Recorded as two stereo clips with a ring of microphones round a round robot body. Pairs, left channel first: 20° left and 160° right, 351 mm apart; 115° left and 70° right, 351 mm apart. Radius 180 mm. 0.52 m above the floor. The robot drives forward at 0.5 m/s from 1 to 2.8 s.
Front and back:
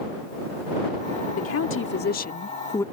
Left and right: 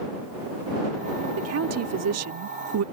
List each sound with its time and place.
1.4 s a woman speaking: 25° right; by 2.8 s 55° right